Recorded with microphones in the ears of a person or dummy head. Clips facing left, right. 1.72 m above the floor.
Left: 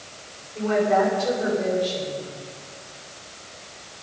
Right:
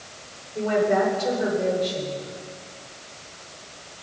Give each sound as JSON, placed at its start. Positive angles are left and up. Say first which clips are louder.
{"t": 0.6, "sound": "a woman speaking", "louder": "left 1 dB", "side_deg": -20, "distance_m": 8.0}